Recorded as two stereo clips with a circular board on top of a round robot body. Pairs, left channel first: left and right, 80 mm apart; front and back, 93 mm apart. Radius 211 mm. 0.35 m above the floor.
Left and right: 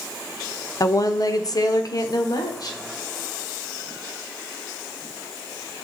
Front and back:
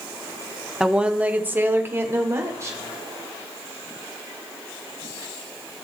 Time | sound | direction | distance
0.8 | a woman speaking | 100° left | 1.1 m